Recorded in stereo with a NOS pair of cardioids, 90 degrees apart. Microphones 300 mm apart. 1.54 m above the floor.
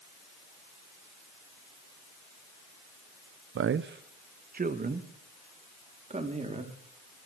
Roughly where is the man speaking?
Ahead right.